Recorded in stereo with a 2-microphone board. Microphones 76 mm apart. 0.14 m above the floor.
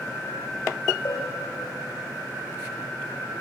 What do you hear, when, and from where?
1.1 s a bell: 60° left (ahead or behind), 5.5 m